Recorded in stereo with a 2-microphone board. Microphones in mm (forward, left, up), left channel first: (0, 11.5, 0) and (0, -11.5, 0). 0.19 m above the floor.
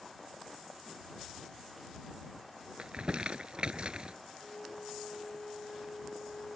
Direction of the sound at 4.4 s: 65° left (ahead or behind).